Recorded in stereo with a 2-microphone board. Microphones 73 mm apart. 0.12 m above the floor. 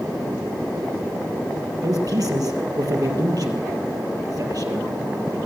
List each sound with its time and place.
1.8 s a man speaking: 55° right (ahead or behind), 2.5 m